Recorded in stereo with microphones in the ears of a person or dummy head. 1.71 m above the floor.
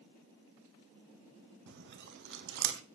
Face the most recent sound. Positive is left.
turn(degrees=-50)  # may be behind; listen again after turning